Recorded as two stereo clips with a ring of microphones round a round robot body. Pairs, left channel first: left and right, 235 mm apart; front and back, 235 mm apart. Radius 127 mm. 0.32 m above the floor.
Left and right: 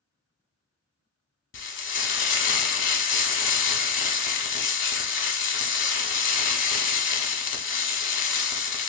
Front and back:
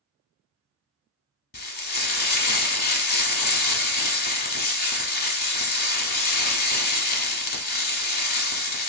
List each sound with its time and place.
1.5 s frying: 50° left, 0.9 m